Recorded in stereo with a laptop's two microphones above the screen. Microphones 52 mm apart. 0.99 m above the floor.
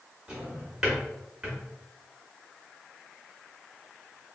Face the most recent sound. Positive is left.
turn(degrees=-15)  # may be behind; listen again after turning